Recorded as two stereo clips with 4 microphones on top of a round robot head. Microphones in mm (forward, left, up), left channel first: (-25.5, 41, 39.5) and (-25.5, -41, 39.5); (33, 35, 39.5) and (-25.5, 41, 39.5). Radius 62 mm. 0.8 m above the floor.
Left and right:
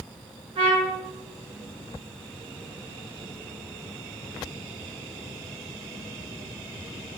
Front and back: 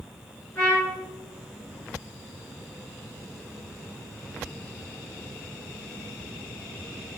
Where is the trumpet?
70° right, 2 m.